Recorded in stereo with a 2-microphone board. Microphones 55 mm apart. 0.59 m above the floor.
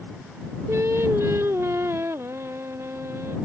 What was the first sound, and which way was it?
Singing, 55° right (ahead or behind).